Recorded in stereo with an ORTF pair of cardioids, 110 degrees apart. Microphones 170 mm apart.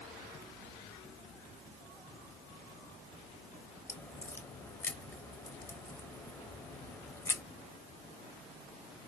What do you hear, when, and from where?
3.9 s a crack: 15° left, 0.6 m